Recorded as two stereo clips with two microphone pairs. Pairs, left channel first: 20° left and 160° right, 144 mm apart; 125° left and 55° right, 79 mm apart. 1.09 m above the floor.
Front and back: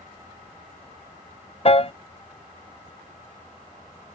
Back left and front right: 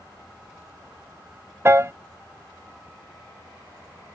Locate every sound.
1.6 s a piano: 10° right